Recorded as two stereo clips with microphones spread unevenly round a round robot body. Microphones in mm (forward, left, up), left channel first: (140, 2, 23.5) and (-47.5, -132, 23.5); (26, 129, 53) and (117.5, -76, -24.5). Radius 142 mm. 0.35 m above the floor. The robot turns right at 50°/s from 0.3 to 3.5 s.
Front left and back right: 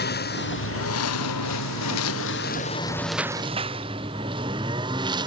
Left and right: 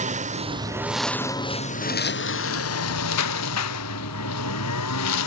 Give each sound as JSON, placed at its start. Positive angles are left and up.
{"t": 0.0, "sound": "a lawn mower", "azimuth_deg": -10}